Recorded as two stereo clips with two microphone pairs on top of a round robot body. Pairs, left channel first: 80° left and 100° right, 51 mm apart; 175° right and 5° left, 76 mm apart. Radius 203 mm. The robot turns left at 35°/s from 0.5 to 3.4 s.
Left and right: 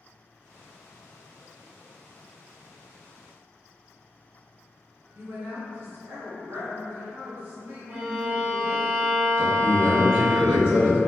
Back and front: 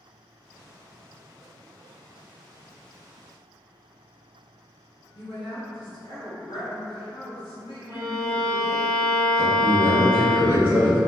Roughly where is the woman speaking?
Behind right.